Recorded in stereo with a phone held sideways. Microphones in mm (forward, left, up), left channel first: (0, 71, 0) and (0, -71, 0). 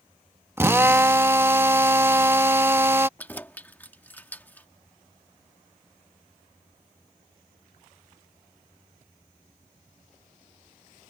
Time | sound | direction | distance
0.6 | a drill | 15° right (ahead or behind) | ?
3.2 | keys jangling | 10° left (ahead or behind) | ?